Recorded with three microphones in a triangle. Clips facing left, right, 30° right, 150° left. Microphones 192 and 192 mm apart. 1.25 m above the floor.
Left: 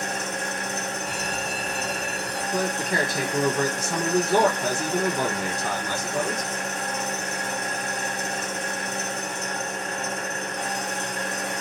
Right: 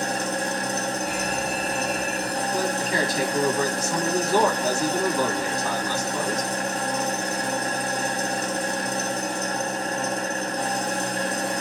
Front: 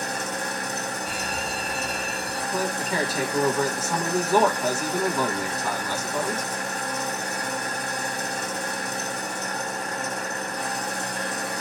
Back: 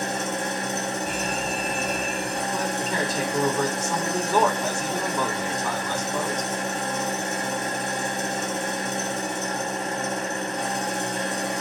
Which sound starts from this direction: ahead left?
A man speaking, at 2.5 s.